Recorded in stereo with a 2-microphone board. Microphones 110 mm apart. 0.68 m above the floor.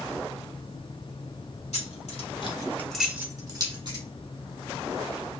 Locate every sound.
1.7 s keys jangling: 80° left, 1.5 m; by 4.0 s 45° right (ahead or behind), 1.8 m